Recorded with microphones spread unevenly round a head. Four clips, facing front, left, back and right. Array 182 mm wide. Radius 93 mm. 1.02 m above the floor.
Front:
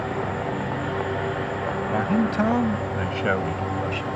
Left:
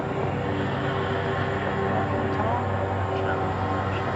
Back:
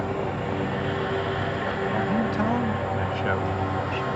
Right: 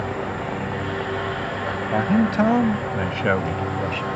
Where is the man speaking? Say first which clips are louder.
Right 5 dB, front 4 dB; 70° right; by 4.1 s 65° right.